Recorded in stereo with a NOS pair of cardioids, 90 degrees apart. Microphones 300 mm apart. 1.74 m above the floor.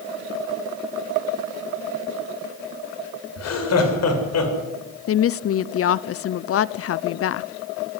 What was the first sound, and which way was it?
Laughter, 55° left.